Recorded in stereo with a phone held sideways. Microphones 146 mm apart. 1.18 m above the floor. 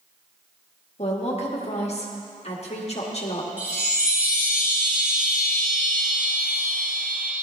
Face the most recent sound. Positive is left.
turn(degrees=-10)  # may be behind; listen again after turning